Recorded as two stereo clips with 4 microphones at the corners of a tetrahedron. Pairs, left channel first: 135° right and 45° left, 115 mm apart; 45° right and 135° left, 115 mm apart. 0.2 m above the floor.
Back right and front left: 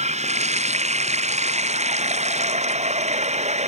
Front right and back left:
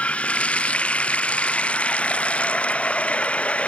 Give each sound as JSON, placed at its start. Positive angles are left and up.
{"t": 0.0, "sound": "running water", "azimuth_deg": 35}